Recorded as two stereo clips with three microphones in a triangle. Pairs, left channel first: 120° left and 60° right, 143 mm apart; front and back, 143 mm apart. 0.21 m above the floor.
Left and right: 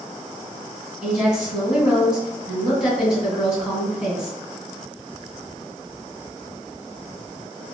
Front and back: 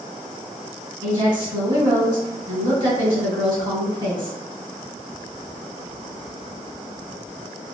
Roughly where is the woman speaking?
Behind right.